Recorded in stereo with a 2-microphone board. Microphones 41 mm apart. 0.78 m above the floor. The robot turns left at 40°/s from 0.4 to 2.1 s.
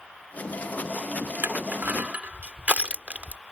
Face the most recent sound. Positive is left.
turn(degrees=-40)  # may be behind; listen again after turning